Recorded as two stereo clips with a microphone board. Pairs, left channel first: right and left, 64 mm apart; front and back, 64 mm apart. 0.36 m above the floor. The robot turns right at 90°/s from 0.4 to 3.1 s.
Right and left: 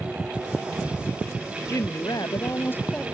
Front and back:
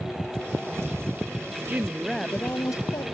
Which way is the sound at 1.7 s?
130° right.